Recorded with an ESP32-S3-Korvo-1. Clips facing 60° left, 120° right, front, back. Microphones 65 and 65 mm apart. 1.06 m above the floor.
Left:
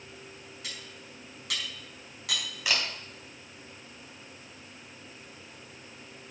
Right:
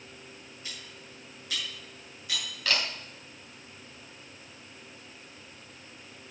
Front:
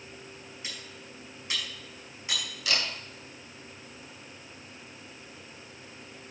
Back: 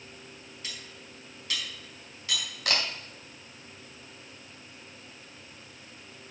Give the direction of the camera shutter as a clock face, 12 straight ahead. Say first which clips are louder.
Right 1 dB, back 1 dB; 7 o'clock.